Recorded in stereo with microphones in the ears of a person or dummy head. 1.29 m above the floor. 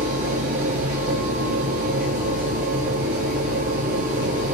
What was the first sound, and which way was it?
A machine running, 40° right (ahead or behind).